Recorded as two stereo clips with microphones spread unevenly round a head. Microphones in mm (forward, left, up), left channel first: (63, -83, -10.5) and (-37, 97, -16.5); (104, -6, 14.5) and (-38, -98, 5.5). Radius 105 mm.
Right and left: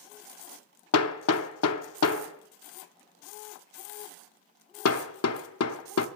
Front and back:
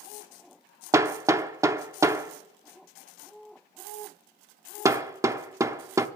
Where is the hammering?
75° right, 0.8 m.